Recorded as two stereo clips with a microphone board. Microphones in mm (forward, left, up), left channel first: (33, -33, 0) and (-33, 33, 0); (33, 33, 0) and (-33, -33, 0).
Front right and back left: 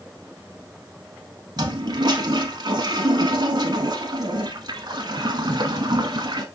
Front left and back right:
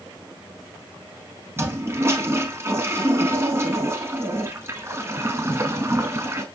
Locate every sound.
1.6 s a toilet flushing: 165° left, 0.7 m